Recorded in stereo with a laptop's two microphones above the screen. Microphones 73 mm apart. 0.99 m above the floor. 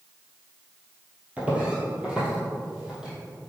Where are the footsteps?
20° right (ahead or behind), 1.6 m; by 3.1 s 10° right (ahead or behind), 2.5 m.